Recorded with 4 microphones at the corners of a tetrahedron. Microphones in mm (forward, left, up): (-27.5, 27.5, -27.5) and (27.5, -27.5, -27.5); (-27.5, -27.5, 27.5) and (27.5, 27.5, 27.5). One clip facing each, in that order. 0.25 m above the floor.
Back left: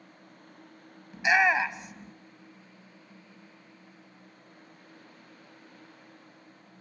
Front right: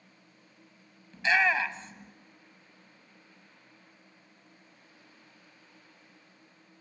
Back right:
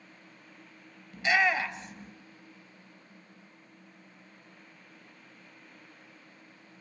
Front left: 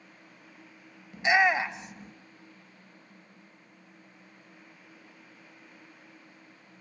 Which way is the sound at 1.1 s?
85° left.